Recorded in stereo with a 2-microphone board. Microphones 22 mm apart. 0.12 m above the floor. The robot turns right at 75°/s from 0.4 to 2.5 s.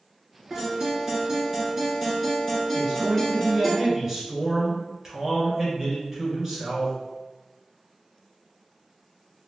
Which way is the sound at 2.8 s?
20° right (ahead or behind).